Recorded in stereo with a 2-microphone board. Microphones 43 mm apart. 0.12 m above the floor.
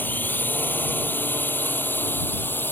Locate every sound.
0.0 s a drone: 45° left (ahead or behind); by 2.7 s 50° left (ahead or behind)